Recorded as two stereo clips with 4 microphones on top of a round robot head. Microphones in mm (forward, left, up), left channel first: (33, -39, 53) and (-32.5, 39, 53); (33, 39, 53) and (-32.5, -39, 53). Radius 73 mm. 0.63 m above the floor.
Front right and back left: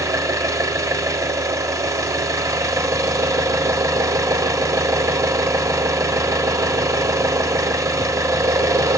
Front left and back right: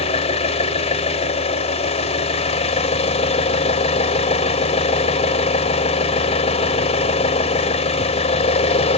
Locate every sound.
0.0 s an engine running: 70° left, 0.9 m